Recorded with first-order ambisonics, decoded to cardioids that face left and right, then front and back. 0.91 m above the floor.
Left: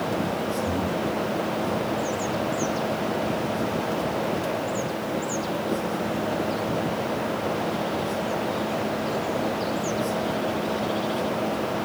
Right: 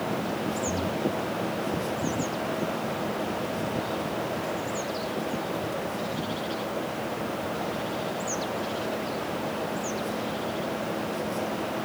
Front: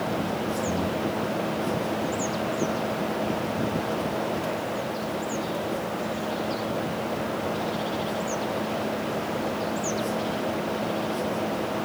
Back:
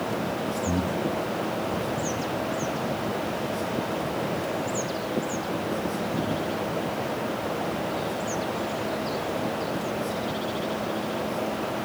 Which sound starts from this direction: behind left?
Breathing, at 0.7 s.